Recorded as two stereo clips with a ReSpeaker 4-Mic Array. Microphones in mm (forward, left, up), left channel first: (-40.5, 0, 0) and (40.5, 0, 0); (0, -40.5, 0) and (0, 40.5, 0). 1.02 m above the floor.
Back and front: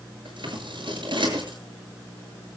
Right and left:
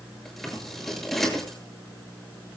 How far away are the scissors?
About 7.5 m.